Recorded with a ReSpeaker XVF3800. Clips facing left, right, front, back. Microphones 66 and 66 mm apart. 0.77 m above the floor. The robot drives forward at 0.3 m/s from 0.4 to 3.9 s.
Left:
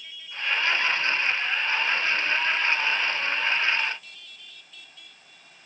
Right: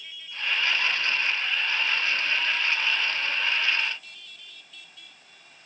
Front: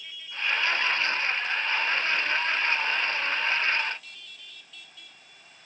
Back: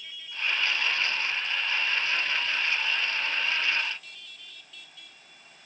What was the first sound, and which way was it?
Only background noise.